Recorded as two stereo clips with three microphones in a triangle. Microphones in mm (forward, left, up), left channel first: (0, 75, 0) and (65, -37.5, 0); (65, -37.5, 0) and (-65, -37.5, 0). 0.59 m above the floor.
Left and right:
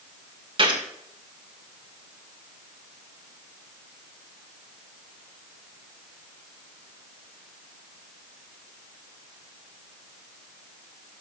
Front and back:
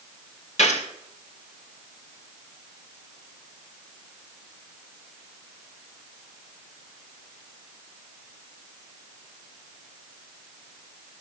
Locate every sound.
0.6 s a gunshot: 15° right, 1.8 m